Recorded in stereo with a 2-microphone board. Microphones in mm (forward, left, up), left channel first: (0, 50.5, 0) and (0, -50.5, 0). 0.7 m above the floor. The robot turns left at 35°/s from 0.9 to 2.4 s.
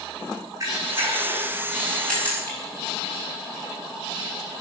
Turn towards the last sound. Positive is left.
turn(degrees=20)  # may be behind; listen again after turning